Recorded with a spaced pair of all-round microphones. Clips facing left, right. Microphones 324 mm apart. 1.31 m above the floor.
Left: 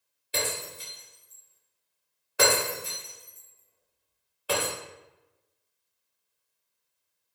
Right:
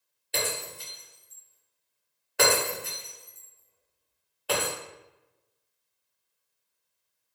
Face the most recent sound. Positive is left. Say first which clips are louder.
# even
turn(degrees=5)  # may be behind; listen again after turning